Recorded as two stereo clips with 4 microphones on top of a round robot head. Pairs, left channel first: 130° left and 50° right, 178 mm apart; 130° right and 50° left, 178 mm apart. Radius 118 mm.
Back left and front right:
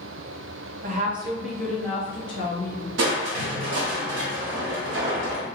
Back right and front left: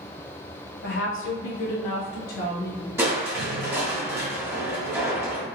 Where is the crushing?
30° right, 0.8 m.